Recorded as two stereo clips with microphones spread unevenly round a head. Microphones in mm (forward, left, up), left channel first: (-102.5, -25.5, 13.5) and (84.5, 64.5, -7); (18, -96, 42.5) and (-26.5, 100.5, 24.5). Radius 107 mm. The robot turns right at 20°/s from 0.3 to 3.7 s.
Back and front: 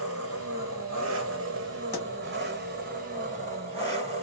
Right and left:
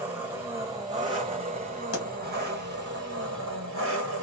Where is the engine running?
20° left, 1.9 m; by 4.2 s 85° left, 1.9 m.